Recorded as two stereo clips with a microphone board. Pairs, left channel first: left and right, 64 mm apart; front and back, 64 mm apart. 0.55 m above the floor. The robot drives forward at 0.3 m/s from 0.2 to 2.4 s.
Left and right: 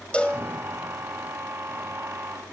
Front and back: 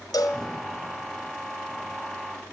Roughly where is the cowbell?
Ahead.